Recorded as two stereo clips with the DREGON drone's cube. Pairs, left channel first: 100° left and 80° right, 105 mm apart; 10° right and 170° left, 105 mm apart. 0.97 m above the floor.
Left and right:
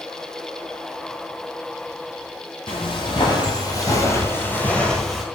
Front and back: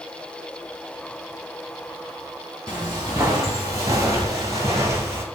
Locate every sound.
2.7 s footsteps: 115° left, 1.5 m; by 5.2 s 165° right, 1.0 m